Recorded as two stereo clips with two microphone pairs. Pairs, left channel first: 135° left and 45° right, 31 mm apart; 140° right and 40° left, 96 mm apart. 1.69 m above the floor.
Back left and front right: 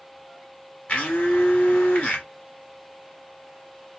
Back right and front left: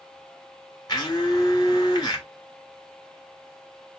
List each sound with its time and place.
0.9 s a blender: 175° left, 2.5 m